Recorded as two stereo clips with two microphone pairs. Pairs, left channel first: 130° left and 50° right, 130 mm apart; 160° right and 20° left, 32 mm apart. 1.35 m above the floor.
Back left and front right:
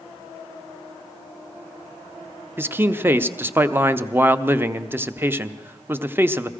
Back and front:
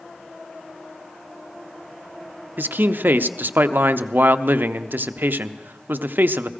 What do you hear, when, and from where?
2.6 s a man speaking: 25° left, 0.5 m